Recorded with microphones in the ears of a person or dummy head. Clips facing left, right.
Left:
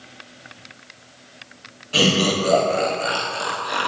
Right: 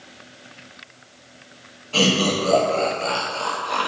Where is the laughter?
15° left (ahead or behind), 0.9 m.